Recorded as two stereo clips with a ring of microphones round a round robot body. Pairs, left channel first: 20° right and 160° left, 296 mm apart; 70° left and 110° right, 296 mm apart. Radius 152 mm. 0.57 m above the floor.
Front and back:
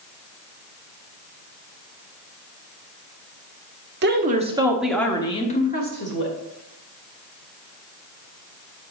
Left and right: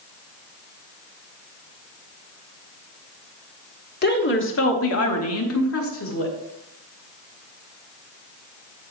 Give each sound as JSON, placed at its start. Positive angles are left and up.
{"t": 4.0, "sound": "a woman speaking", "azimuth_deg": 115, "distance_m": 1.3}